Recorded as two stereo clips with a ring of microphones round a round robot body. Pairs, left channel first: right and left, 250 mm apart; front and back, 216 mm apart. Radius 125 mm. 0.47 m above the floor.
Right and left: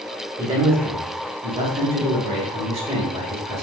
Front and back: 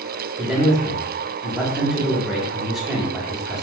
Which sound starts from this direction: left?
A man speaking, at 0.4 s.